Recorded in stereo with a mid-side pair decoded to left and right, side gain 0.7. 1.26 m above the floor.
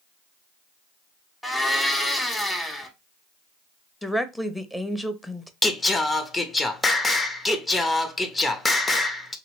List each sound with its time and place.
1.4 s a blender: 10° left, 1.0 m
4.0 s a woman speaking: 5° left, 0.7 m
5.6 s singing: 15° left, 0.6 m